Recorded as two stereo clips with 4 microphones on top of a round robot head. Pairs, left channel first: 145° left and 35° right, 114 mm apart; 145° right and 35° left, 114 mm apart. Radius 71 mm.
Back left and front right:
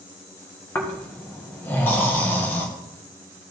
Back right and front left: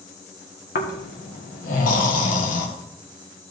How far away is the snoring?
About 1.4 m.